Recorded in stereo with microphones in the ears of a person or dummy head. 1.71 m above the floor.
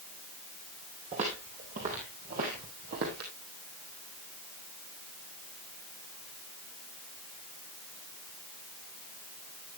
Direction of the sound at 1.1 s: 30° right (ahead or behind).